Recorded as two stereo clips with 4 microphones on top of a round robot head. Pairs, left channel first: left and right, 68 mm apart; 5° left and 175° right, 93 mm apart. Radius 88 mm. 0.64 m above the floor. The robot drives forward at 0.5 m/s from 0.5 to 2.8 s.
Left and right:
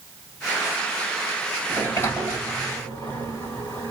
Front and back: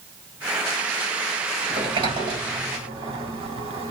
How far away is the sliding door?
About 1.9 m.